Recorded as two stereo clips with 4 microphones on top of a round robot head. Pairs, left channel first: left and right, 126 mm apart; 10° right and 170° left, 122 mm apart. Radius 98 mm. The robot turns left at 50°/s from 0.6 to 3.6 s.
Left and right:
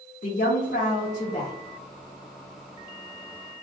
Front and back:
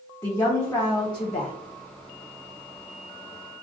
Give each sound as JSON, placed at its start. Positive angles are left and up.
{"t": 0.2, "sound": "a woman speaking", "azimuth_deg": 65, "distance_m": 0.6}